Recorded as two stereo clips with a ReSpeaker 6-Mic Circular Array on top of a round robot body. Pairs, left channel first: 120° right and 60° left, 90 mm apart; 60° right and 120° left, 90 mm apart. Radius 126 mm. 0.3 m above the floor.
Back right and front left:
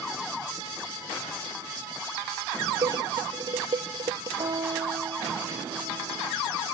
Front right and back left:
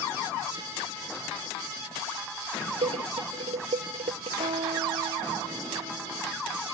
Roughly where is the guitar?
Left.